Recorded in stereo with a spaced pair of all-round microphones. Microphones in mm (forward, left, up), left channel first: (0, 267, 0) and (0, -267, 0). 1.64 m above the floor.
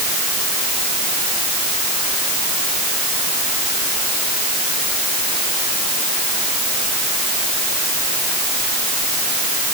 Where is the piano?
No piano in this recording.